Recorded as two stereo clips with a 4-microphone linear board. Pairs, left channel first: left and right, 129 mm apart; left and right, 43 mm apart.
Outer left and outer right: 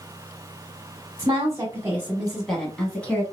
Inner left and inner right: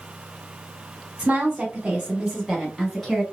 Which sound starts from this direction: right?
A woman speaking, at 1.2 s.